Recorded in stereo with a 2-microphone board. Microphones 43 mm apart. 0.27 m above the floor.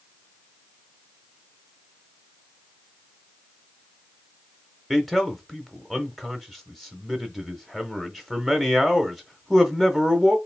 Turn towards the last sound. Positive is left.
turn(degrees=5)  # may be behind; listen again after turning